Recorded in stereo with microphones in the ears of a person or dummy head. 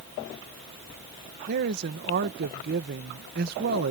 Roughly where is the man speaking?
Right.